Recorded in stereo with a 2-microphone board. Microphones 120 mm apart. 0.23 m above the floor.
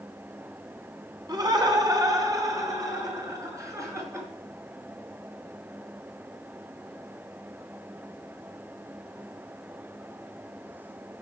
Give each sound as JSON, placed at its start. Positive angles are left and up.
{"t": 1.3, "sound": "laughter", "side_deg": -35, "distance_m": 2.0}